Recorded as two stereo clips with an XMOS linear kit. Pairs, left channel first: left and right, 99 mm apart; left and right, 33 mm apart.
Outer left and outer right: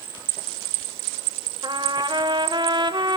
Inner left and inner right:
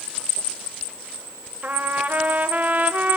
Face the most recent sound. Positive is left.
turn(degrees=-50)  # may be behind; listen again after turning